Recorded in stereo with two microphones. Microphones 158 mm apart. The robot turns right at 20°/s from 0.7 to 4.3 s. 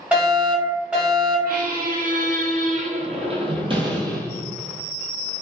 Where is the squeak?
80° right, 0.9 m; by 4.6 s 20° right, 0.9 m.